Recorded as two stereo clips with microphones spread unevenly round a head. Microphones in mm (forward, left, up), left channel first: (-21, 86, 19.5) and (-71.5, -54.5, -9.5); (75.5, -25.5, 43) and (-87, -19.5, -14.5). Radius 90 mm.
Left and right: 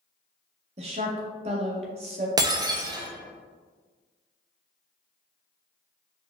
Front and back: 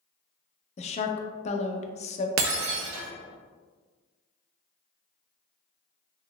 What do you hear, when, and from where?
0.8 s a woman speaking: 60° right, 0.5 m
2.4 s breaking glass: straight behind, 0.6 m